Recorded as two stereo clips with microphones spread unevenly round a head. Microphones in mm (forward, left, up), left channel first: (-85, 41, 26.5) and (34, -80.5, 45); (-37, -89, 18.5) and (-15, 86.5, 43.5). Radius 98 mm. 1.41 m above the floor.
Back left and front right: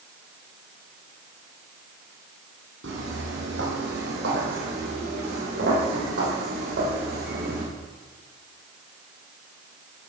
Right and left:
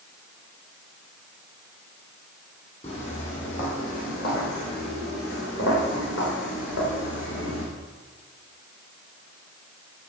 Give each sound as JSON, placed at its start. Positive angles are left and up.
{"t": 2.8, "sound": "footsteps", "azimuth_deg": -35, "distance_m": 3.5}